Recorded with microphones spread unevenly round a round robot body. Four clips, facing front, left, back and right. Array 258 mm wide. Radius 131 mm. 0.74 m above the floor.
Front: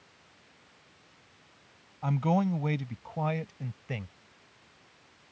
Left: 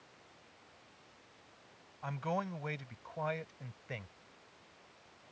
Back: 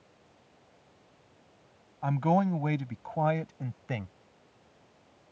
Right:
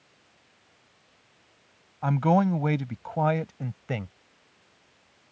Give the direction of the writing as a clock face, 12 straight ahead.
I don't hear writing.